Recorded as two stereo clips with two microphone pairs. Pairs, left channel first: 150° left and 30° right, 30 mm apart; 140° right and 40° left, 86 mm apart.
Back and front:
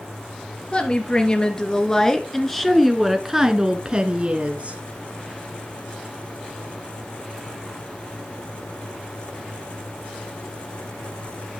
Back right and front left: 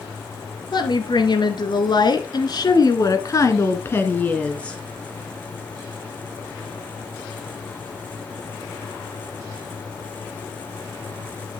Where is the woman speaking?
160° right, 2.5 m; by 4.8 s 65° right, 1.7 m.